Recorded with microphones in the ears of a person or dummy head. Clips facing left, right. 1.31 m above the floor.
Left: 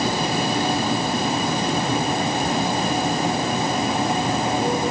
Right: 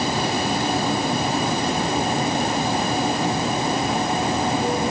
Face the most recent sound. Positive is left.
No sound to turn to.